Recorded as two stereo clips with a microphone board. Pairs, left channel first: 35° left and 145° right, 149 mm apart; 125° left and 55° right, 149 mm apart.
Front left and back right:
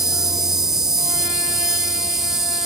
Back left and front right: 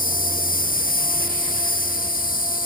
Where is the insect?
130° left, 0.9 m.